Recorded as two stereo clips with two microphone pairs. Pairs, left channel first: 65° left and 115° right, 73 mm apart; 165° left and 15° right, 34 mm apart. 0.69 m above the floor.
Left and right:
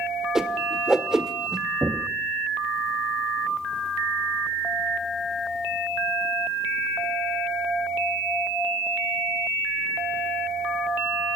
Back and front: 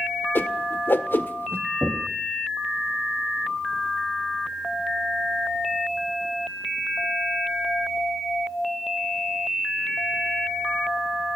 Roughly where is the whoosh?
Behind.